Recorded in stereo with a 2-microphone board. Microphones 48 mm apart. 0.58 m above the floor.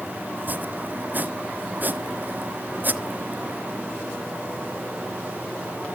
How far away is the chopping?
About 1.0 m.